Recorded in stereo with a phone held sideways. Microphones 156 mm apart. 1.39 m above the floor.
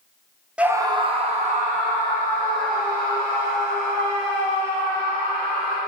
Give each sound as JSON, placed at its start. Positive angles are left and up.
{"t": 0.6, "sound": "a scream", "side_deg": -5, "distance_m": 0.7}